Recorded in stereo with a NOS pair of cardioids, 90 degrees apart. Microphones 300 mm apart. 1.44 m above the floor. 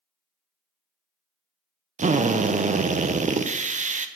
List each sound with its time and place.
2.0 s a drill: 25° right, 0.7 m